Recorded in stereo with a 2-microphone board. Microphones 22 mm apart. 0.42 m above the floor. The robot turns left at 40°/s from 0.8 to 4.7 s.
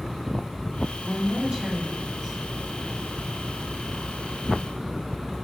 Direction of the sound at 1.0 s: 115° right.